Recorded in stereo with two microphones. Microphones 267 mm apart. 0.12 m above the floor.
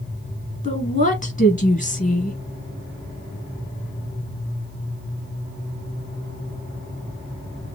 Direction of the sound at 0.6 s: 30° left (ahead or behind).